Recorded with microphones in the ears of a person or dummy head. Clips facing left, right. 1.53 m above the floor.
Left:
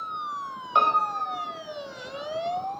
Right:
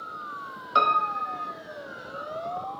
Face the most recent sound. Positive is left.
turn(degrees=-15)  # may be behind; listen again after turning